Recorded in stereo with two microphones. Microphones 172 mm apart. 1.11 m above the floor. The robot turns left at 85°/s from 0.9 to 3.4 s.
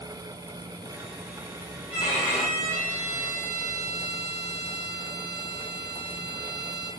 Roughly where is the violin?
Ahead left.